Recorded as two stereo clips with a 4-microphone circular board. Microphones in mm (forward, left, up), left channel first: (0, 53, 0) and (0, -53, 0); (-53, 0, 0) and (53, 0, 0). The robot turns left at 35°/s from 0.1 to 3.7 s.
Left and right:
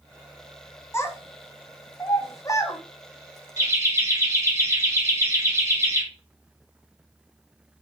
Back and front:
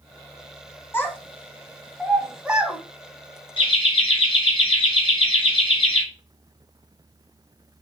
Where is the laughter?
140° right, 2.5 m; by 6.0 s 145° right, 2.5 m.